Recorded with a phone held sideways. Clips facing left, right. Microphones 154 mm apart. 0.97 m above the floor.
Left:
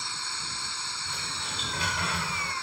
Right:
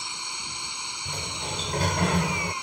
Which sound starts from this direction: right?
A sliding door, at 1.1 s.